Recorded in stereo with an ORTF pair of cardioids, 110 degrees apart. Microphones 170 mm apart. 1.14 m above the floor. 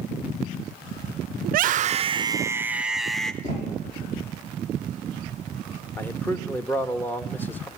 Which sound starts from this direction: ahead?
A man speaking, at 6.0 s.